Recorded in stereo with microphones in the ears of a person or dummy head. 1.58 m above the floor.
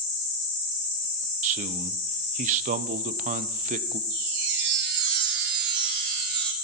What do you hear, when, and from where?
1.4 s a man speaking: 40° right (ahead or behind), 0.7 m
4.1 s a chime: 50° right (ahead or behind), 1.1 m